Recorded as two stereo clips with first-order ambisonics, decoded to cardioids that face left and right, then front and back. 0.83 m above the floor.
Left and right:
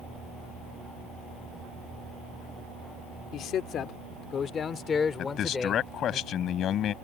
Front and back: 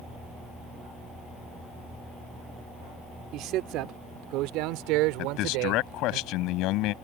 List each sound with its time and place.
3.3 s a man speaking: 140° left; by 6.2 s 170° left
5.2 s a man speaking: 35° left